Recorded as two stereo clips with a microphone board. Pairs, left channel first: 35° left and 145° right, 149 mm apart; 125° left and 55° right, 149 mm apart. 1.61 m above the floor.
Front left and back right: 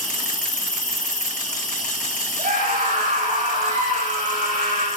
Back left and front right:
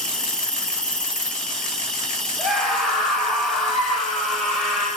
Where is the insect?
40° left, 1.8 m.